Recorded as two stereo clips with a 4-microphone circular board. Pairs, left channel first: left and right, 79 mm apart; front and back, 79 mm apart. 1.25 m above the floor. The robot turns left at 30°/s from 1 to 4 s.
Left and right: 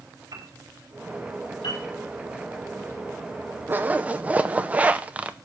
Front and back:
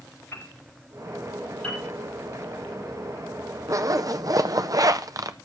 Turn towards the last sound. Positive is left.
turn(degrees=-155)